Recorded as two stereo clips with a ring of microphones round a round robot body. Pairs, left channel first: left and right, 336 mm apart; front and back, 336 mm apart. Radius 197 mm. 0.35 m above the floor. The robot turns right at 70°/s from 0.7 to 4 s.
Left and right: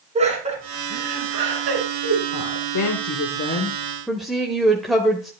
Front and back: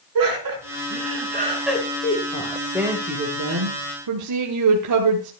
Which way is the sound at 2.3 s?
65° left.